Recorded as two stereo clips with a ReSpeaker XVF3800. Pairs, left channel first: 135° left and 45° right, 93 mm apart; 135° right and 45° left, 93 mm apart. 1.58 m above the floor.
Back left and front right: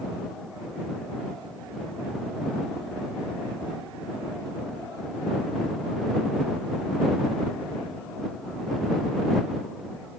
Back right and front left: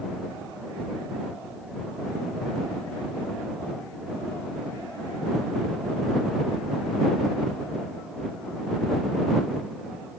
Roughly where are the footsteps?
I don't hear footsteps.